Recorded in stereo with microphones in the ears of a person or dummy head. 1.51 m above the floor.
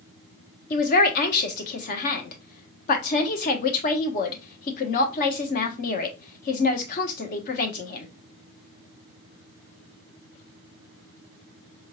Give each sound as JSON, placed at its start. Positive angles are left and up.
{"t": 0.7, "sound": "a man speaking", "side_deg": 50, "distance_m": 1.0}